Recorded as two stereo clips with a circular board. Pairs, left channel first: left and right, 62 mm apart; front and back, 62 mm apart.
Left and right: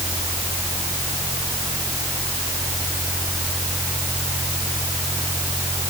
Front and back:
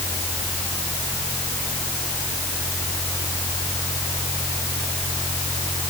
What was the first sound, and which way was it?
Only background noise.